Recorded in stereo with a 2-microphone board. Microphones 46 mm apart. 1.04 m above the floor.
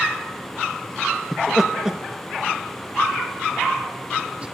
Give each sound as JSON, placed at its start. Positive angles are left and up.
{"t": 1.3, "sound": "laughter", "side_deg": 5, "distance_m": 0.9}